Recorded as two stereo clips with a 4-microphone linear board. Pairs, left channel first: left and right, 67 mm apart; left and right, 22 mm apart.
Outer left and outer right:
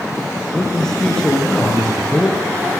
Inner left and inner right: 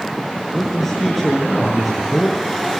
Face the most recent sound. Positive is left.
turn(degrees=10)  # may be behind; listen again after turning